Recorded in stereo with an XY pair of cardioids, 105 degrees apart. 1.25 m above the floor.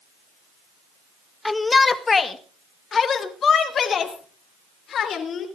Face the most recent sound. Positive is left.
turn(degrees=55)